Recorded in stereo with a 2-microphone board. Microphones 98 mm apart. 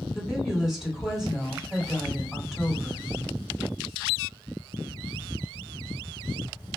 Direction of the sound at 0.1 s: Centre (ahead or behind).